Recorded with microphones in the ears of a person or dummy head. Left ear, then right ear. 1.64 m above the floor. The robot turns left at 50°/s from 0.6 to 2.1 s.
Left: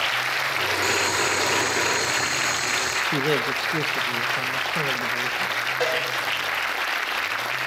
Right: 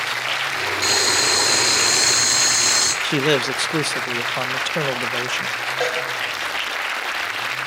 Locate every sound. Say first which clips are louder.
0.8 s boiling: right 7 dB; 30° right, 5 m; by 2.9 s 95° right, 5 m
3.0 s a man speaking: right 3 dB; 40° right (ahead or behind), 0.6 m
5.8 s a cowbell: right 2 dB; 5° right (ahead or behind), 5.5 m